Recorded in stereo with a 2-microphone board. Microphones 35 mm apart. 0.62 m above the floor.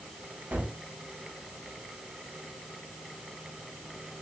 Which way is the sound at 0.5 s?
65° right (ahead or behind).